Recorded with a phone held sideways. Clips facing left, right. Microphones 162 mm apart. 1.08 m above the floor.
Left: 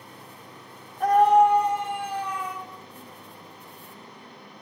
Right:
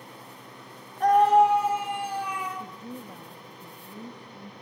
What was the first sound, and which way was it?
A scream, 5° left (ahead or behind).